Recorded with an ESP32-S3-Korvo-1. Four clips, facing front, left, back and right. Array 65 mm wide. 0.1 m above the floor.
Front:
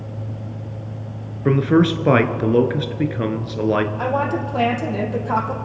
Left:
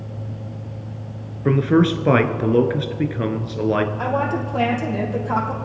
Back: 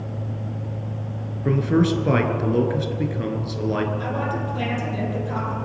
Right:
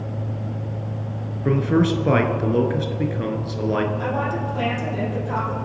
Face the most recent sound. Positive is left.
turn(degrees=30)